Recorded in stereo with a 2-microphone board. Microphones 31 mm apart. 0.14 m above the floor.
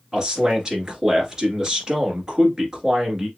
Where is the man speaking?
25° right (ahead or behind), 1.8 m.